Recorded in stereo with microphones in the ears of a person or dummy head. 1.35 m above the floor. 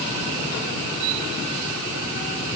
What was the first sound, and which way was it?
Only background noise.